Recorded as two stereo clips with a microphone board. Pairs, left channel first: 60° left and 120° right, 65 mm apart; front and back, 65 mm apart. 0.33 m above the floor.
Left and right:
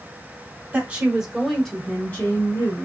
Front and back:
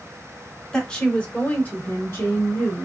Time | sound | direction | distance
0.7 | a woman speaking | 70° right | 1.1 m